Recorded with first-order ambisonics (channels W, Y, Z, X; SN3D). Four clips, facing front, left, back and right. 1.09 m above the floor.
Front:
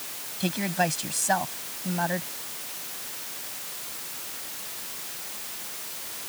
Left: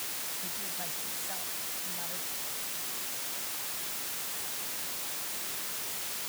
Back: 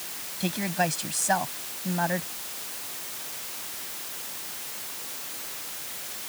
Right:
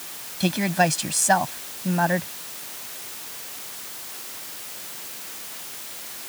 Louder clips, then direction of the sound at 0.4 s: Right 18 dB, front 1 dB; 85° right.